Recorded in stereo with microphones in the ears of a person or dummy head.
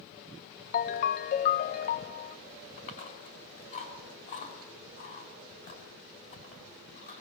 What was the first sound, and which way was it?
A ringtone, 45° left (ahead or behind).